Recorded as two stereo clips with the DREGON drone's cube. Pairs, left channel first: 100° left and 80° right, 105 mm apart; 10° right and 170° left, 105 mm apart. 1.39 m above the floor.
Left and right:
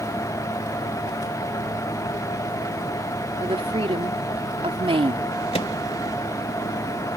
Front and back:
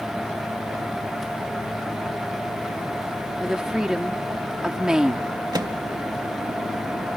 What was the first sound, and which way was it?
A woman speaking, 105° right.